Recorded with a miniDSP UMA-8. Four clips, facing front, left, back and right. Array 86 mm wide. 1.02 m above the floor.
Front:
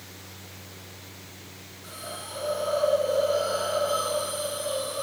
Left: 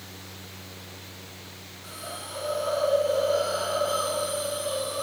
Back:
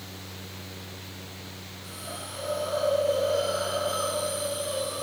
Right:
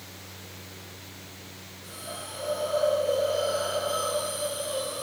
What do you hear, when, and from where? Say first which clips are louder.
1.8 s a hiss: left 1 dB, front 1 dB; 50° left, 4.5 m